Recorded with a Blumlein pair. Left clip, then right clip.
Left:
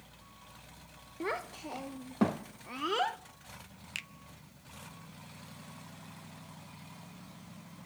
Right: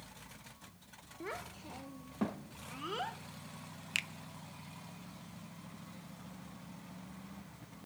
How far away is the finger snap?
About 0.5 m.